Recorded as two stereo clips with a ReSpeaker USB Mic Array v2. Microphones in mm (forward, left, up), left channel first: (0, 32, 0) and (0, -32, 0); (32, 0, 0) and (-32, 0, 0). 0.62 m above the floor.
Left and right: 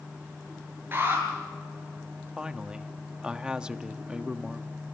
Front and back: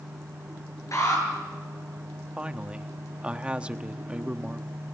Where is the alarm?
35° right, 9 m.